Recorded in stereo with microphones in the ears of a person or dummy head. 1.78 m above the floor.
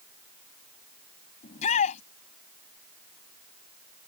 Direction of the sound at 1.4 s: 40° left (ahead or behind).